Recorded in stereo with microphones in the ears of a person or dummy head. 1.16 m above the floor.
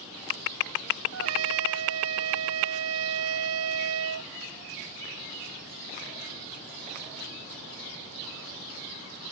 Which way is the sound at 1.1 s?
85° right.